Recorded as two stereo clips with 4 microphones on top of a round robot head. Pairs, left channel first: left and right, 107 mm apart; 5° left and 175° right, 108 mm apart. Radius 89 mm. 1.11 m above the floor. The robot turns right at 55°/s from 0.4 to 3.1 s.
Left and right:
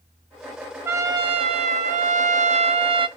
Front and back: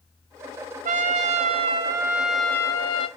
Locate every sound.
0.8 s a trumpet: 165° right, 0.6 m; by 3.1 s 45° right, 0.6 m